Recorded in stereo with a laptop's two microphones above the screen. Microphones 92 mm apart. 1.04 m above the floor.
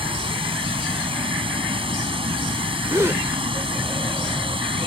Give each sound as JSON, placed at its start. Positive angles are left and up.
{"t": 0.0, "sound": "running water", "side_deg": -80}
{"t": 2.9, "sound": "a gasp", "side_deg": -30}